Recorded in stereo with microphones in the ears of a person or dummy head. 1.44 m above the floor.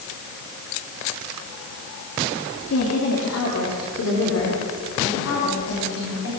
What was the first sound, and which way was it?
A woman speaking, 85° left.